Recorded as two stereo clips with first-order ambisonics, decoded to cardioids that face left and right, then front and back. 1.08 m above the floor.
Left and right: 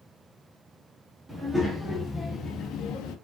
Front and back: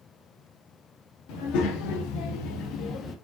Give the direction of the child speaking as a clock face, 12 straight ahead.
12 o'clock.